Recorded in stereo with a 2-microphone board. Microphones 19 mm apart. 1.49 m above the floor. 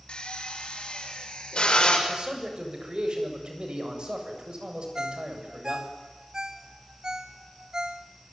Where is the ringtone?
50° right (ahead or behind), 1.6 m.